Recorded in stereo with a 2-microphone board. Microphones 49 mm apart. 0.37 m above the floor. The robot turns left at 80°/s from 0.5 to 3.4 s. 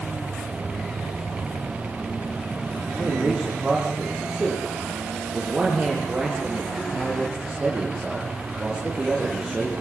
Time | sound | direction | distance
3.0 | a man speaking | 125° right | 9 m